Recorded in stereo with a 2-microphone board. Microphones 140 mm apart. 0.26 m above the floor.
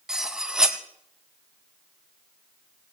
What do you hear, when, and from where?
0.1 s cutlery clinking: 5° right (ahead or behind), 1.1 m